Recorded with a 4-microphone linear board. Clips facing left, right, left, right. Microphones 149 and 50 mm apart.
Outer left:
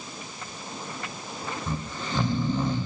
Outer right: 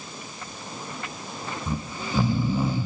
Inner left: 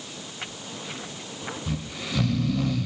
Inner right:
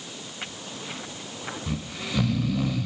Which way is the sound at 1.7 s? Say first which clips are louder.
Outer right 4 dB, even; 5° right (ahead or behind).